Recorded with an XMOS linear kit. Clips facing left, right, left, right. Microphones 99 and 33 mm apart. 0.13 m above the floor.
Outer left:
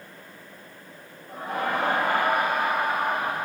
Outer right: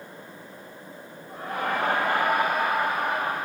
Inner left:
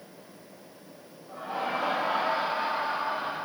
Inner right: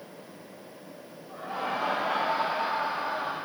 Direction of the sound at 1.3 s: 60° left (ahead or behind).